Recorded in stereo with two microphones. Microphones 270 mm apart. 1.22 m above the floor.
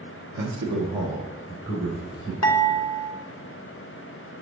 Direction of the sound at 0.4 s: 75° right (ahead or behind).